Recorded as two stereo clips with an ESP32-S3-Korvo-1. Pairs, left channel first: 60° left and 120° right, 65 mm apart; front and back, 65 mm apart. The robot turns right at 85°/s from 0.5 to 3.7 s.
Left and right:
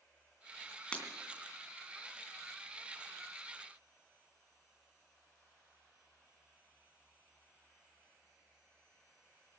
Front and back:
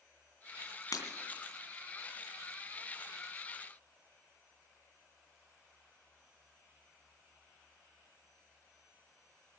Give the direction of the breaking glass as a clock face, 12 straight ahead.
12 o'clock.